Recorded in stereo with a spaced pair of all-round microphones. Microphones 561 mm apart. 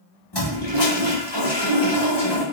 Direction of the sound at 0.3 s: 45° left (ahead or behind).